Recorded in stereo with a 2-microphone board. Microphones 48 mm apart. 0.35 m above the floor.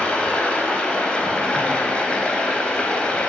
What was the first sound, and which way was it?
Running water, 25° left (ahead or behind).